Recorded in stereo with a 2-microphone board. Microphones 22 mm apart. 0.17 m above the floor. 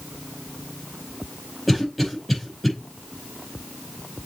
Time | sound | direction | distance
1.7 | a cough | 10° left (ahead or behind) | 5 m